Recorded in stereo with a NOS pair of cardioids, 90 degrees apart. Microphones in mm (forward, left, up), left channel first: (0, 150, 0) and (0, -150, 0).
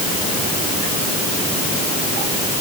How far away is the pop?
I don't hear a pop.